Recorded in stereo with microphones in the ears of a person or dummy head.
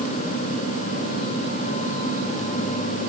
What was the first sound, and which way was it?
Only background noise.